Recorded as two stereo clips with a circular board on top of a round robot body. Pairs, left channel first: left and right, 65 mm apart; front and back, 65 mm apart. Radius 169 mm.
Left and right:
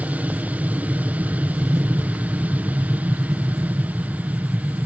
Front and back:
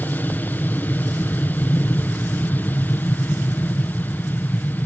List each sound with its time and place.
0.0 s an aircraft: 40° right